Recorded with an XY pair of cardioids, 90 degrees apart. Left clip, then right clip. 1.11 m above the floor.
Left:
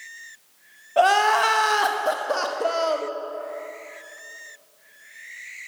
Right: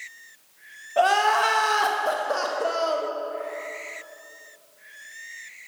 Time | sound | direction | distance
1.0 | crying | 25° left | 0.8 m